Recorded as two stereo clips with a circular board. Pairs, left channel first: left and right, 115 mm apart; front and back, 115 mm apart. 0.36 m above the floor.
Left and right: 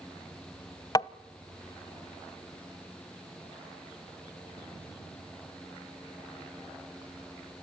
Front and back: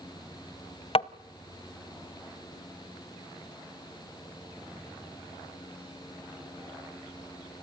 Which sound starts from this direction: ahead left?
Tapping, at 0.9 s.